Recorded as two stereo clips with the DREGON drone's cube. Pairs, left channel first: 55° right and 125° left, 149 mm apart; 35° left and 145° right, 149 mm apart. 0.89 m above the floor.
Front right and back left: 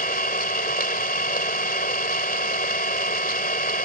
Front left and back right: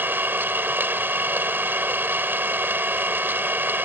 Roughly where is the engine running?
Right.